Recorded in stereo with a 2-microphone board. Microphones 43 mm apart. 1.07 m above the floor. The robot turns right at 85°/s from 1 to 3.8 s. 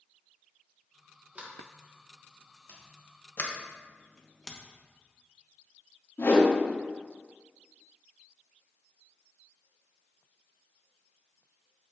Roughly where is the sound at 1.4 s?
Right.